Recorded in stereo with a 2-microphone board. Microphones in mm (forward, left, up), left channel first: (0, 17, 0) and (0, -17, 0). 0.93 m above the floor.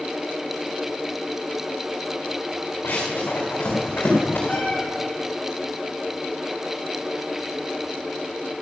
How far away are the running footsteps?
About 4.5 m.